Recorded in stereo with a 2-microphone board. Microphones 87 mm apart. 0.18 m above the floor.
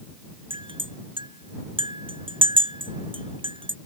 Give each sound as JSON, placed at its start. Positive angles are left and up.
{"t": 0.5, "sound": "a clink", "side_deg": -80}